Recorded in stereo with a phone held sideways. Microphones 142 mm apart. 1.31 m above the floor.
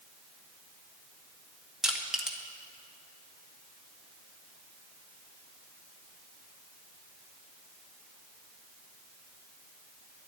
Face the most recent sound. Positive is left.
turn(degrees=-5)  # may be behind; listen again after turning